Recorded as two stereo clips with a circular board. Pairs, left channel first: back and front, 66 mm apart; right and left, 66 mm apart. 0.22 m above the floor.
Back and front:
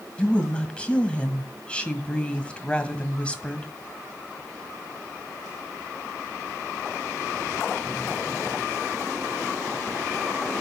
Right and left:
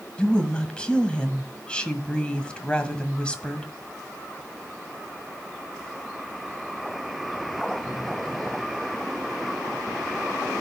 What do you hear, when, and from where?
0.2 s a woman speaking: 140° right, 1.5 m